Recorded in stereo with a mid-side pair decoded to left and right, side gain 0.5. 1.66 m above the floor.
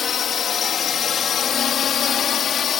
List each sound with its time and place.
0.0 s a drone: 50° left; by 2.8 s 55° left